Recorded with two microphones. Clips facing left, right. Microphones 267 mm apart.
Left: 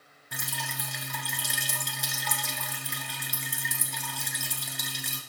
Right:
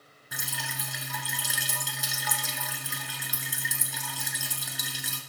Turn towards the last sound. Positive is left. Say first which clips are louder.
# left 1 dB
turn(degrees=-5)  # may be behind; listen again after turning